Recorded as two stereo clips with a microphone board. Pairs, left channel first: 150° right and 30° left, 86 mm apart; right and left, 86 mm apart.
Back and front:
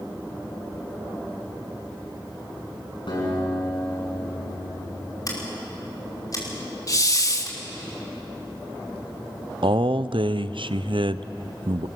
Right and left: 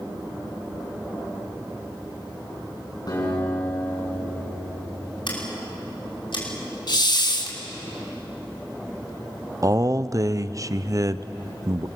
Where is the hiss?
110° right, 1.3 m.